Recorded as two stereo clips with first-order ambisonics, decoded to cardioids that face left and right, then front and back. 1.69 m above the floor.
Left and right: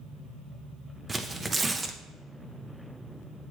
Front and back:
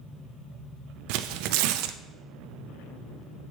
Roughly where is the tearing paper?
Behind.